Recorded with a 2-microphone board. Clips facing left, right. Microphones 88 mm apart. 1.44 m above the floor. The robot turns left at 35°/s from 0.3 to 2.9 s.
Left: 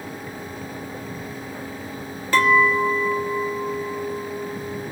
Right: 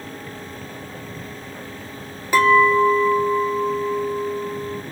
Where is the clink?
15° right (ahead or behind), 0.8 m; by 4.8 s 30° right (ahead or behind), 0.8 m.